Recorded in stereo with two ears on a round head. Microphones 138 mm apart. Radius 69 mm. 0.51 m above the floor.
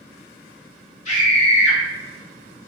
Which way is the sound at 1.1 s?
50° left (ahead or behind).